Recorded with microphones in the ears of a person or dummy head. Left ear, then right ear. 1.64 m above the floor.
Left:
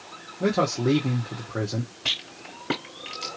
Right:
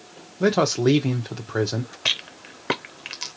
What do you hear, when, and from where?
0.4 s a man speaking: 50° right (ahead or behind), 0.8 m
2.0 s a rattle: 30° right (ahead or behind), 0.6 m